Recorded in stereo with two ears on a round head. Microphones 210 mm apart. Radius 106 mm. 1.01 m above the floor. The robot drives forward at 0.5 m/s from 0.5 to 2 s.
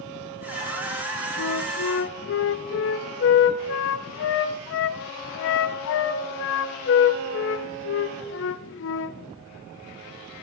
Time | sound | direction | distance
1.4 | a flute | 80° left | 0.5 m